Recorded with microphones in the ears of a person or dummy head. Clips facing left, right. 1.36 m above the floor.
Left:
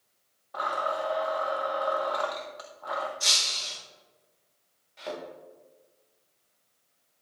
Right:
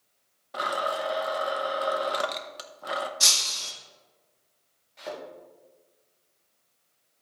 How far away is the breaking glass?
About 1.3 m.